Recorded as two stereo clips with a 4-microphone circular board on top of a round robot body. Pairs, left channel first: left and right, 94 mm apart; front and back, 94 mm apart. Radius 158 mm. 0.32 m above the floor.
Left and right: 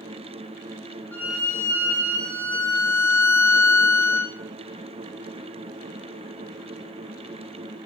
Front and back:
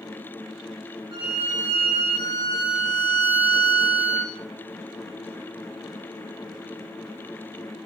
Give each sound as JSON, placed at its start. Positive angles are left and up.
{"t": 1.1, "sound": "a violin", "azimuth_deg": 160, "distance_m": 7.0}